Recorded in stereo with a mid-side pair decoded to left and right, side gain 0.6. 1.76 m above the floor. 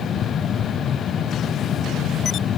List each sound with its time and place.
0.0 s a fan: 45° left, 0.7 m